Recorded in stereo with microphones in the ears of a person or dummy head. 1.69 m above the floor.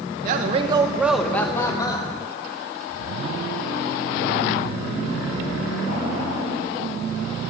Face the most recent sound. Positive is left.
turn(degrees=30)  # may be behind; listen again after turning